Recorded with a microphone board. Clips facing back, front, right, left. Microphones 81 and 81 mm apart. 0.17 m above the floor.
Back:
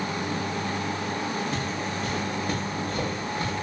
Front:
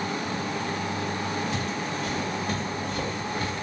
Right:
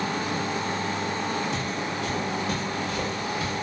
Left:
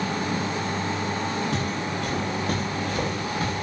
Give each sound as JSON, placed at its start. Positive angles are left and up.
{"t": 1.5, "sound": "footsteps", "azimuth_deg": 125, "distance_m": 6.5}